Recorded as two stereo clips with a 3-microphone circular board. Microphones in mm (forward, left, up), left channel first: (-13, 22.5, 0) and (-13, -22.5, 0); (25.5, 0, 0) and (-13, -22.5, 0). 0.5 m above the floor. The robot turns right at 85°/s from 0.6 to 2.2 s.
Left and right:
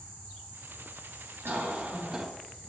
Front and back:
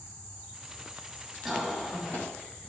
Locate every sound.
1.4 s a cough: 65° right, 3 m; by 2.2 s straight ahead, 3 m